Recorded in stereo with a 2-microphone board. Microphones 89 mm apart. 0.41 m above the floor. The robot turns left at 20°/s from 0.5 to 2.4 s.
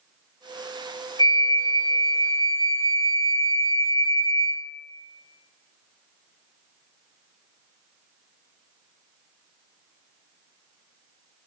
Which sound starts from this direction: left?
A flute, at 1.2 s.